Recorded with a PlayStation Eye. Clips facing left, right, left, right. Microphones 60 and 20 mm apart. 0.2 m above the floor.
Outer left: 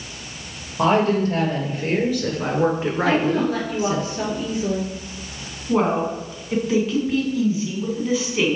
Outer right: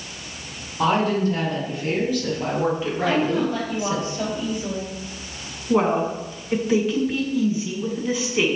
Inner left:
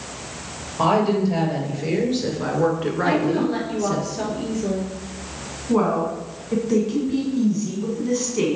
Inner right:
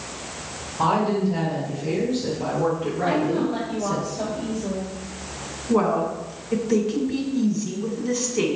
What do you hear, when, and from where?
0.8 s a woman speaking: 60° left (ahead or behind), 4 m; by 4.0 s 35° left (ahead or behind), 1.5 m
3.0 s a woman speaking: 65° left (ahead or behind), 3.5 m
5.7 s a woman speaking: centre (ahead or behind), 1.9 m